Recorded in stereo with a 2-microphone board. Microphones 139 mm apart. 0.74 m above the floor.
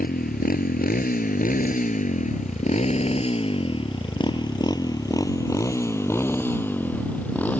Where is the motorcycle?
85° left; by 7.6 s 10° left (ahead or behind).